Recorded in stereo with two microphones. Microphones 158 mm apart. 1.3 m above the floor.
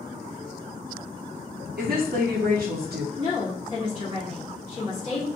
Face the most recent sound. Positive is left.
turn(degrees=50)  # may be behind; listen again after turning